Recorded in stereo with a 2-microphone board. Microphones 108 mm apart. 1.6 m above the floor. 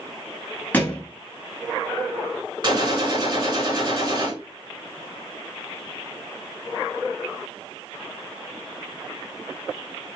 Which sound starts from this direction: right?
A gunshot, at 2.6 s.